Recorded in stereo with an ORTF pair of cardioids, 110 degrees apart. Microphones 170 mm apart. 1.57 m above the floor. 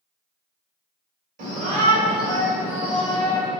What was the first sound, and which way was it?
A shout, 50° right.